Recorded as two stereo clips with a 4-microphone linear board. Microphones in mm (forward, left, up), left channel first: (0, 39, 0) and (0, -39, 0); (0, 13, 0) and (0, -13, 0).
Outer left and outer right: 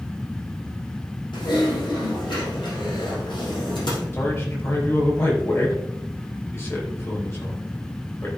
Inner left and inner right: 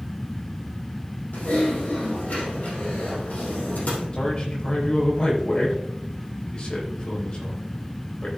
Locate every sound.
1.3 s typing on a keyboard: 75° left (ahead or behind), 3.5 m
4.1 s a man speaking: 40° left (ahead or behind), 4 m